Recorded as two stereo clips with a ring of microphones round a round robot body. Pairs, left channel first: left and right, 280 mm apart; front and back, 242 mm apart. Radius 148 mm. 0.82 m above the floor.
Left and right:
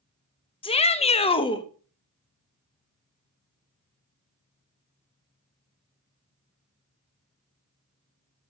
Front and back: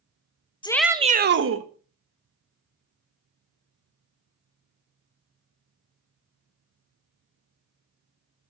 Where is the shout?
45° left, 0.8 m; by 1.6 s 165° left, 1.4 m.